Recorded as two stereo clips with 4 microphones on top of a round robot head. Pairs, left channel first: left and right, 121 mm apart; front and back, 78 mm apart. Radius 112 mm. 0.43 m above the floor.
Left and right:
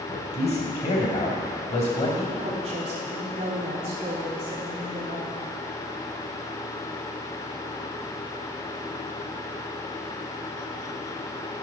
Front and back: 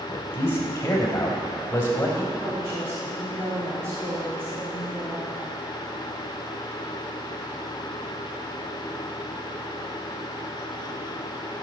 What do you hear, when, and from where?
0.1 s a man speaking: 60° left, 3 m
2.4 s a woman speaking: 125° right, 1.8 m